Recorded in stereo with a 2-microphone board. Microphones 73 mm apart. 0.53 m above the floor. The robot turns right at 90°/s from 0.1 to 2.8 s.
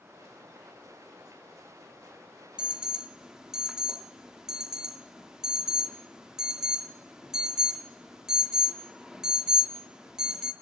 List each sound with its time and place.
2.6 s an alarm: 15° right (ahead or behind), 0.5 m; by 10.5 s 10° right (ahead or behind), 0.5 m